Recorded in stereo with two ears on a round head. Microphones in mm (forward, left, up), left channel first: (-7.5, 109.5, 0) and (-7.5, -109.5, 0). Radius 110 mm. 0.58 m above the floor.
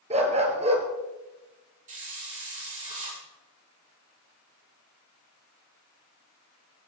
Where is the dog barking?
25° right (ahead or behind), 2.5 m.